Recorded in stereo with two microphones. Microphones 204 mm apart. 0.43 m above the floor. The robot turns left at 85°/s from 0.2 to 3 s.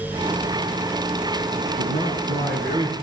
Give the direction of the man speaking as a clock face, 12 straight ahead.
1 o'clock.